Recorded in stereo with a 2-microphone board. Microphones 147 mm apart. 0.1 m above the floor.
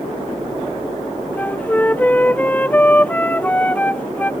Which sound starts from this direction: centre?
A flute, at 1.4 s.